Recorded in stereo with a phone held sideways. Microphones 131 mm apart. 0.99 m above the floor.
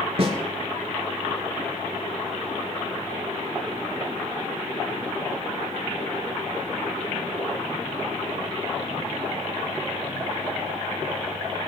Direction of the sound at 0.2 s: 50° right (ahead or behind).